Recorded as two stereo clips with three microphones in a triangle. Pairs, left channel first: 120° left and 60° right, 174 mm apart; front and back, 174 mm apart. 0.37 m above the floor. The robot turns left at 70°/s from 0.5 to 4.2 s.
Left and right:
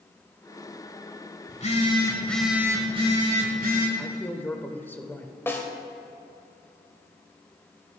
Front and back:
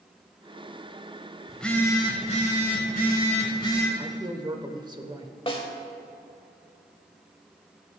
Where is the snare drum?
45° left, 1.2 m.